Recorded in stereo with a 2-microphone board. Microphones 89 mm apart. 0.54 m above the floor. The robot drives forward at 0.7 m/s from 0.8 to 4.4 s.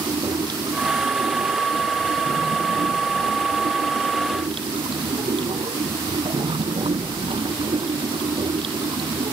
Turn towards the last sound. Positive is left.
turn(degrees=-85)